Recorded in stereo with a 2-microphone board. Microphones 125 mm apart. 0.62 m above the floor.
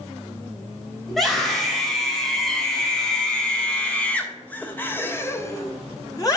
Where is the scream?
Centre (ahead or behind), 3 m; by 6.4 s 30° left (ahead or behind), 0.7 m.